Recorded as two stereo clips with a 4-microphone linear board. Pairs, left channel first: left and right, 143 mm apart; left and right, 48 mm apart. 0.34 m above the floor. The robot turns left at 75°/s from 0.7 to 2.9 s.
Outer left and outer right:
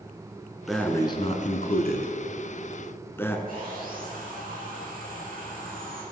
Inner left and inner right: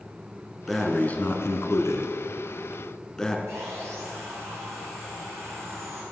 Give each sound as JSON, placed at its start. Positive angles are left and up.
{"t": 0.7, "sound": "breathing", "side_deg": 0, "distance_m": 1.4}
{"t": 3.5, "sound": "sawing", "side_deg": -70, "distance_m": 5.5}